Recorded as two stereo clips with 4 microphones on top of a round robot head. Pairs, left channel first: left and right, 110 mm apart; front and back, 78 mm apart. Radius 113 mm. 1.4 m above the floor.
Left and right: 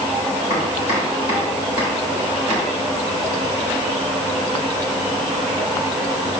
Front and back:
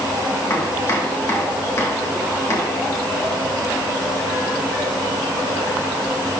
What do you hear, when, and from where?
0.5 s chopping: 50° left, 1.8 m